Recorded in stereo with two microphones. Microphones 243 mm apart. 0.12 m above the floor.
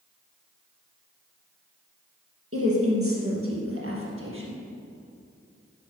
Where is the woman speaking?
65° right (ahead or behind), 4 m; by 4.6 s 55° right (ahead or behind), 4 m.